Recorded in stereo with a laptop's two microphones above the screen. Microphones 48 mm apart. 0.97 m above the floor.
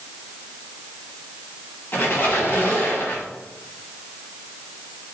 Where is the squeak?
50° left (ahead or behind), 1.1 m.